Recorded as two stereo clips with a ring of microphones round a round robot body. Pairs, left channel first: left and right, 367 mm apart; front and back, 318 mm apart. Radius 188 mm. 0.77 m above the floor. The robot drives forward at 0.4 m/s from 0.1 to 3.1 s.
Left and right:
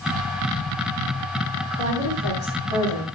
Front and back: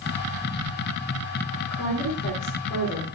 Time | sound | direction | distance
1.7 | a woman speaking | 75° right | 8.5 m